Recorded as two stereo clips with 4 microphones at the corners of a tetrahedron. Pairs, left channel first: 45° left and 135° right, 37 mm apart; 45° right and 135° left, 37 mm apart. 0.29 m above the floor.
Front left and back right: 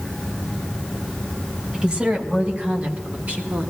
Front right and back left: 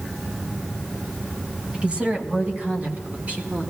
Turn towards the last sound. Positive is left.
turn(degrees=-175)